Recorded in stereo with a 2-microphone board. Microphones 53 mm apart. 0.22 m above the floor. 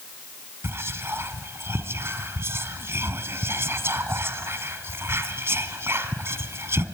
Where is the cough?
I don't hear a cough.